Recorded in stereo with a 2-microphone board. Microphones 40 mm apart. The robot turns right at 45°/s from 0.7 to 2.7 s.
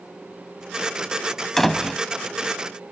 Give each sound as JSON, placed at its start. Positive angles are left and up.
{"t": 1.6, "sound": "a door slam", "side_deg": 5}